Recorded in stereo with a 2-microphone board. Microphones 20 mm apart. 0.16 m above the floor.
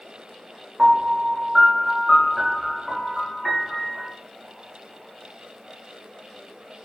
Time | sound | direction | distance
0.8 | a piano | 5° right (ahead or behind) | 6.5 m